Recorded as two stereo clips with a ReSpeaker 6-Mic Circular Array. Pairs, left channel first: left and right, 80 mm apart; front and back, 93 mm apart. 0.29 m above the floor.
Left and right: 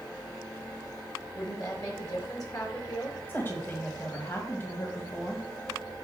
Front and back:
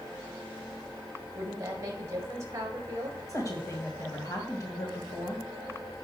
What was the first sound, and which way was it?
A woman speaking, 125° left.